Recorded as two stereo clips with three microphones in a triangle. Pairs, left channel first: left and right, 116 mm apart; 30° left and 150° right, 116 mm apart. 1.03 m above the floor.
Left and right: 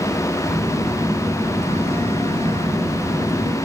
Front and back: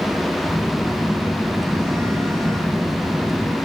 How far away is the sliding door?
I don't hear a sliding door.